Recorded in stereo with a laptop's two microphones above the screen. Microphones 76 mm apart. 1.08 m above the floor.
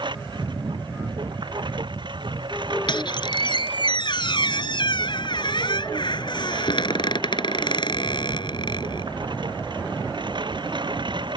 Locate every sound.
0.0 s a lawn mower: 75° right (ahead or behind)
2.9 s a squeak: 80° left